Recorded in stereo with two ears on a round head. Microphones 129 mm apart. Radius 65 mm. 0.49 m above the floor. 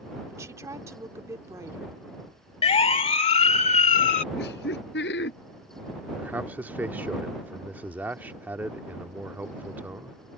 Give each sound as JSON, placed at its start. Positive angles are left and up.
{"t": 0.3, "sound": "a woman speaking", "side_deg": -20}
{"t": 2.6, "sound": "a siren", "side_deg": 40}
{"t": 4.3, "sound": "laughter", "side_deg": 85}
{"t": 6.2, "sound": "a man speaking", "side_deg": -10}